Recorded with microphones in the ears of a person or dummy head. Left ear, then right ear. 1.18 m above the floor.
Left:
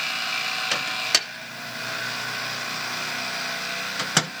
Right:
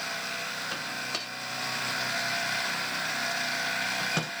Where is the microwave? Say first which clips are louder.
Left 10 dB; 55° left (ahead or behind), 0.6 m.